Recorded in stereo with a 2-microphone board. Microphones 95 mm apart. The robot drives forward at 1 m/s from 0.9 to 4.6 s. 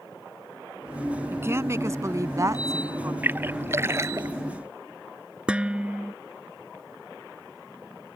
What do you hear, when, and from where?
1.3 s a woman speaking: 25° right (ahead or behind); by 3.1 s 30° right (ahead or behind)
3.2 s a splash: 20° right (ahead or behind); by 4.3 s 35° right (ahead or behind)
5.5 s dishes clattering: 10° right (ahead or behind)